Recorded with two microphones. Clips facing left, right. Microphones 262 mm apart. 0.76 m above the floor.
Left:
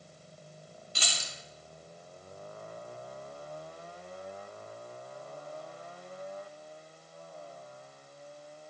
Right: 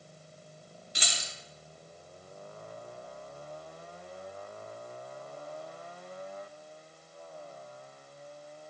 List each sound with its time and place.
0.9 s keys jangling: 20° right (ahead or behind), 0.6 m